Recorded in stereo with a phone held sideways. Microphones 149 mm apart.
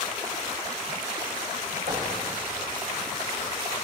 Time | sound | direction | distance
1.9 | knocking | 55° right (ahead or behind) | 7.5 m